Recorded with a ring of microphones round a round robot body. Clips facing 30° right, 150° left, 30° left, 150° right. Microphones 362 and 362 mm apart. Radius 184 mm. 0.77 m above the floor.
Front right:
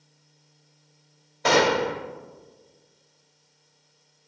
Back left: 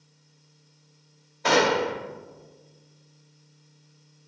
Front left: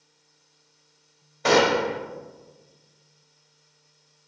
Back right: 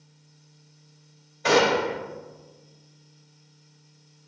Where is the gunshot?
15° right, 1.9 m.